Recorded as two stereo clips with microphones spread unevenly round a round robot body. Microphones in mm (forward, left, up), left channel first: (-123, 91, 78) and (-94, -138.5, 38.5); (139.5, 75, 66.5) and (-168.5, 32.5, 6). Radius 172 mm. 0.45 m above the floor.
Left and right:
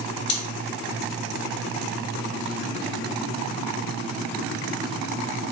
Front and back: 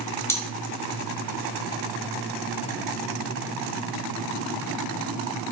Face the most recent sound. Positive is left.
turn(degrees=95)